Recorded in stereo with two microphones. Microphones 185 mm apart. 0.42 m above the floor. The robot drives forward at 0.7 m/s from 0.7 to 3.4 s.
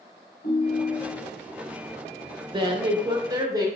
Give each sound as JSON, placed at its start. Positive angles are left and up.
{"t": 0.4, "sound": "a ringtone", "side_deg": 55, "distance_m": 1.3}
{"t": 2.5, "sound": "a woman speaking", "side_deg": -25, "distance_m": 0.8}